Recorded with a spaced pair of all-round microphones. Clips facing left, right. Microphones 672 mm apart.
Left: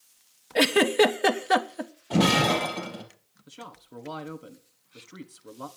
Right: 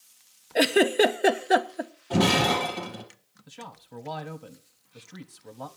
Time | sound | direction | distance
0.6 | a giggle | 35° left (ahead or behind) | 0.8 m
2.1 | breaking glass | centre (ahead or behind) | 2.5 m
3.5 | a man speaking | 25° right (ahead or behind) | 1.3 m